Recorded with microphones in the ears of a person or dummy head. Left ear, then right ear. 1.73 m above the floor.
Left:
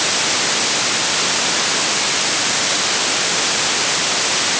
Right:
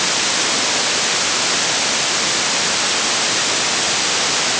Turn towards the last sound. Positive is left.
No sound to turn to.